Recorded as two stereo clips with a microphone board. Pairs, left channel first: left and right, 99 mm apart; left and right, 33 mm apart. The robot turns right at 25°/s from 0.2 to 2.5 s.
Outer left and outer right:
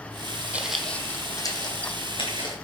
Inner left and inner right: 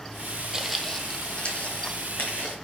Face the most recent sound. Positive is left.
turn(degrees=75)  # may be behind; listen again after turning